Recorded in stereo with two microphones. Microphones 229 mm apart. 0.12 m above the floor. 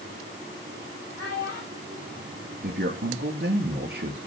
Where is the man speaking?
50° right (ahead or behind), 1.8 m.